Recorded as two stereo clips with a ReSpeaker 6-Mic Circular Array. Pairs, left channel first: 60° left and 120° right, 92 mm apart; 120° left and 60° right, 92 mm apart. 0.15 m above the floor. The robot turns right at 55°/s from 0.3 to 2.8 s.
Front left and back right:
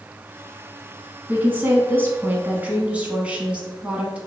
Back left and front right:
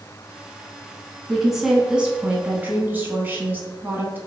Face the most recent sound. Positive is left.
turn(degrees=-70)